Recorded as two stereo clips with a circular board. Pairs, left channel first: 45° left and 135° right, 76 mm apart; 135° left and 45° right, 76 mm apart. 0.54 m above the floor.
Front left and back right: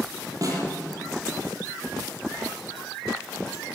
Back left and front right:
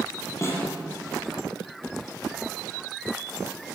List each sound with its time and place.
0.4 s a snare drum: 175° right, 6.5 m